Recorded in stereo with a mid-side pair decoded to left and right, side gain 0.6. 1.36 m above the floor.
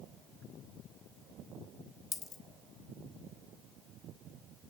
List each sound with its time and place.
2.1 s a dropped coin: 40° left, 2 m